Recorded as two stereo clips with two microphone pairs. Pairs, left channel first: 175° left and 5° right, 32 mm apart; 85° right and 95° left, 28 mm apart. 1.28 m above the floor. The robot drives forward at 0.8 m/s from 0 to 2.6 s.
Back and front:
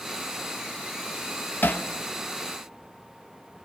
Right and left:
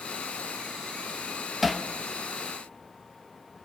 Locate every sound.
1.6 s hammering: 175° right, 1.1 m; by 1.8 s straight behind, 1.3 m